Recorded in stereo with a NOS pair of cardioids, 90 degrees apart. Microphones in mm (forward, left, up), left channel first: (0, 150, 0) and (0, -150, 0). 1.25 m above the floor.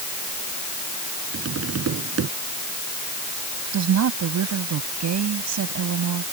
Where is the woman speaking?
65° right.